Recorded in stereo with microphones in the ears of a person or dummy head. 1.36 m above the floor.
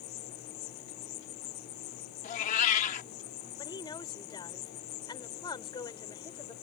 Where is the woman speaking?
20° left (ahead or behind).